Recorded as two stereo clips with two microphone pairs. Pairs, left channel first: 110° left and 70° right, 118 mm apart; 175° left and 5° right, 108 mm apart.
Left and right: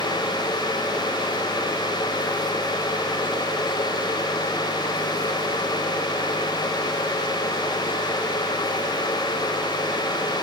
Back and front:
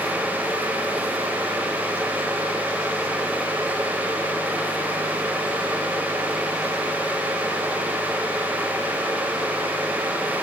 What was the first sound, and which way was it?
Only background noise.